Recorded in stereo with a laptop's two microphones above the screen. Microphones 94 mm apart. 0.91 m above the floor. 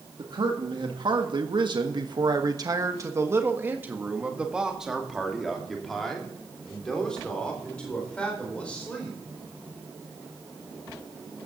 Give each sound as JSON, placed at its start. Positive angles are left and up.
{"t": 0.2, "sound": "a man speaking", "side_deg": -55, "distance_m": 2.0}